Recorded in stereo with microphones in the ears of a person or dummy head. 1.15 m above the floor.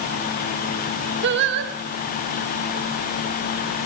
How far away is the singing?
About 1.4 m.